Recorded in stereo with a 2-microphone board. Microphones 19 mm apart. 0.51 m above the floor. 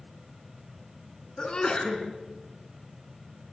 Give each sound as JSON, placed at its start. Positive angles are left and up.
{"t": 1.4, "sound": "a sneeze", "side_deg": 50, "distance_m": 6.0}